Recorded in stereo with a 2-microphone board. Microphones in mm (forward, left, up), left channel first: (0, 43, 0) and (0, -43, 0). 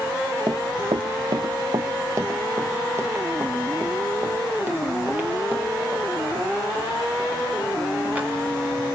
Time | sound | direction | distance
0.5 | running footsteps | 50° right (ahead or behind) | 0.7 m